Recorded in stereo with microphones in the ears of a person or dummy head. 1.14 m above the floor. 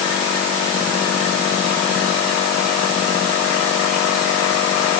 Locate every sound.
Only background noise.